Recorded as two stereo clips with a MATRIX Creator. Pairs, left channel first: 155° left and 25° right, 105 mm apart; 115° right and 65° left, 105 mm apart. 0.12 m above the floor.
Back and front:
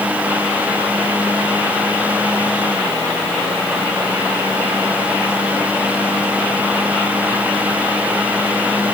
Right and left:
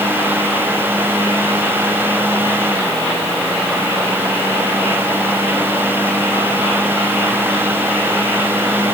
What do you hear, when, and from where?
Only background noise.